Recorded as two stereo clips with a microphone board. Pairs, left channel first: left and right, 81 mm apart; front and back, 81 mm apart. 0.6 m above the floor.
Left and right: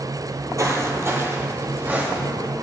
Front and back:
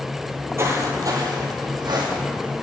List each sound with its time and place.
0.2 s footsteps: 115° right, 0.9 m; by 2.5 s 165° right, 1.9 m